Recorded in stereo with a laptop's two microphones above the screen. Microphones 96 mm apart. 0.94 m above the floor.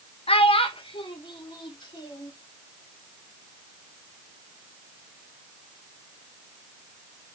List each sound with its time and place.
0.3 s a child speaking: 85° left, 0.7 m; by 2.3 s 55° left (ahead or behind), 2 m